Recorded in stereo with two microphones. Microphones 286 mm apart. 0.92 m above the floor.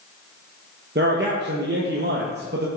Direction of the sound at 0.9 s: 35° right (ahead or behind).